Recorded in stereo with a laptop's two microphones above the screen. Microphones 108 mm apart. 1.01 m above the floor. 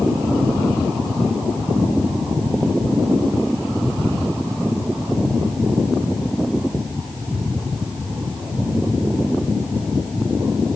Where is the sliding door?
No sliding door in this recording.